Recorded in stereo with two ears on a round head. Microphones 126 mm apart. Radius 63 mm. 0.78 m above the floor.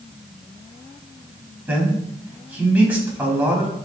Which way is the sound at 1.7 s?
10° right (ahead or behind).